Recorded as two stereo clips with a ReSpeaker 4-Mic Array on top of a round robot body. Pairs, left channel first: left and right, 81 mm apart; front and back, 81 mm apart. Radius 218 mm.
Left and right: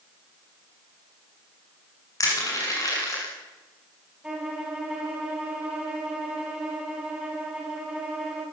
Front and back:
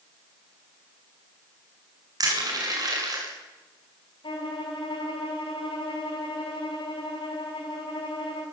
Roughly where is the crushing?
Behind left.